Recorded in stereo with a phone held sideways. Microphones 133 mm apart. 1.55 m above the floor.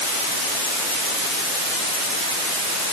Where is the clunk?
No clunk in this recording.